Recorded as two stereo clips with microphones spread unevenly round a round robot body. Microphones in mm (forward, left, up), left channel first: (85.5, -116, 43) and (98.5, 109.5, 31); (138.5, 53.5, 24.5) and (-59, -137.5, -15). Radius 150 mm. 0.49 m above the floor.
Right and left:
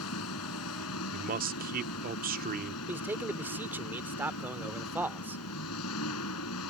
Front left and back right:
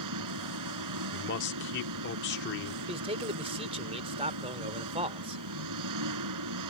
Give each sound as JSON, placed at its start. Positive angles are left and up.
{"t": 0.0, "sound": "an engine running", "azimuth_deg": -130}
{"t": 1.1, "sound": "a man speaking", "azimuth_deg": 85}
{"t": 2.9, "sound": "a man speaking", "azimuth_deg": 165}